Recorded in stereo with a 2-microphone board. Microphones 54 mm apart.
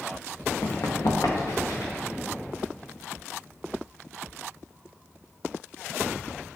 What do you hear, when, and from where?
0.6 s running footsteps: 65° left (ahead or behind), 1.3 m; by 1.9 s 85° left, 2 m